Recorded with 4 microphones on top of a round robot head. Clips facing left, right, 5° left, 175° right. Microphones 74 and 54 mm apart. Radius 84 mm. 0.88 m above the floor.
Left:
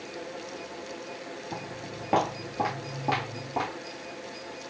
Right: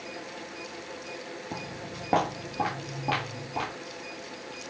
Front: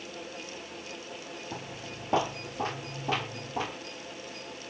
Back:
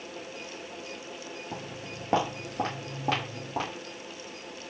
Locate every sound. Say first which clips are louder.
1.5 s footsteps: even, back 1 dB; 120° right, 0.9 m; by 3.7 s 160° left, 1.4 m